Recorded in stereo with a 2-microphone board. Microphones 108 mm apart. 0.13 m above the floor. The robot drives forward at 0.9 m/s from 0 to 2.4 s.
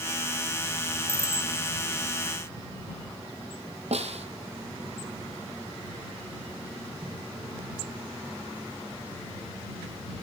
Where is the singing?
No singing in this recording.